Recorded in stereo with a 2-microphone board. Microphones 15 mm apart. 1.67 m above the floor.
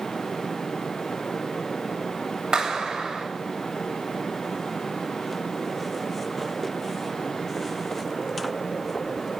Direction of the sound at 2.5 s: 60° right (ahead or behind).